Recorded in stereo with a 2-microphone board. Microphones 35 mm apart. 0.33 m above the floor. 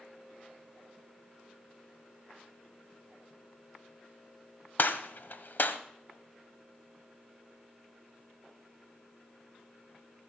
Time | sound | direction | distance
4.8 | a gunshot | 60° left (ahead or behind) | 1.0 m